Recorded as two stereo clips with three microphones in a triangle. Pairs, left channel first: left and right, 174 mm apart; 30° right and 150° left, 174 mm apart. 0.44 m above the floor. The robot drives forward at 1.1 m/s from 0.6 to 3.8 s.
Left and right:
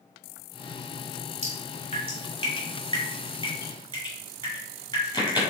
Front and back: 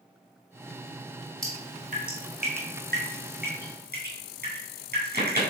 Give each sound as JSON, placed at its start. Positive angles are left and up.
{"t": 1.4, "sound": "dripping", "azimuth_deg": 135, "distance_m": 3.0}